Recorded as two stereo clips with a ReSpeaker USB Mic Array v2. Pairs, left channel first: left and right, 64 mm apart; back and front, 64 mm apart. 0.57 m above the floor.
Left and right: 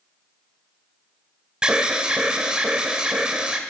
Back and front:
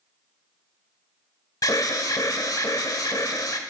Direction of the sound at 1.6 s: 165° right.